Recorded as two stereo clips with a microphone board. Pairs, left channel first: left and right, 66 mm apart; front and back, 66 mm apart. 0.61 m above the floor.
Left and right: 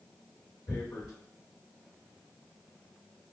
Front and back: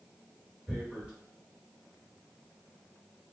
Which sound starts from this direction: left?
Tearing paper, at 0.7 s.